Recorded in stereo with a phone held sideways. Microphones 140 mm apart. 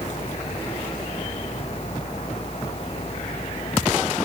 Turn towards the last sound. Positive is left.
turn(degrees=45)  # may be behind; listen again after turning